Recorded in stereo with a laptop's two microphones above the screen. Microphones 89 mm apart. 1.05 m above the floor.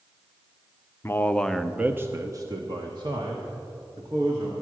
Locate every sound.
1.0 s a man speaking: 30° left (ahead or behind), 0.6 m; by 4.5 s 60° right (ahead or behind), 1.8 m